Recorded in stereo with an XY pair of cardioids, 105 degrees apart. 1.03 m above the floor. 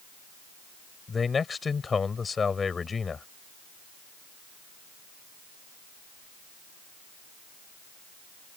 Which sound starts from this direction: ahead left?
A man speaking, at 1.1 s.